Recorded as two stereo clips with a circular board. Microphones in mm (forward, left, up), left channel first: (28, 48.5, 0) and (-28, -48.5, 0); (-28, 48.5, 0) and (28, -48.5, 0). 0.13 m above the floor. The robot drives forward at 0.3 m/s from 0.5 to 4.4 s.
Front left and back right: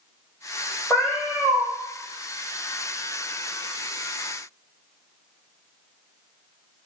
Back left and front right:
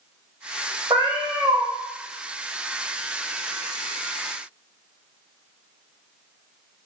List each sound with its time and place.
0.9 s a cat meowing: 20° right, 1.8 m; by 1.7 s 25° right, 1.6 m